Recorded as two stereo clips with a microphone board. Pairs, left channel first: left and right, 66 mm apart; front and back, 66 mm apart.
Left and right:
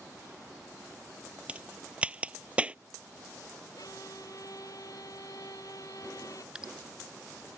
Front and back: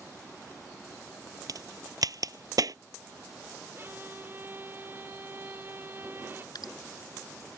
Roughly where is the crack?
Behind.